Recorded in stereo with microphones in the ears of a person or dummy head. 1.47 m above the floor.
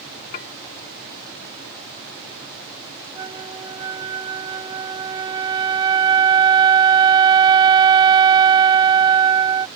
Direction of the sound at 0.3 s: 50° left (ahead or behind).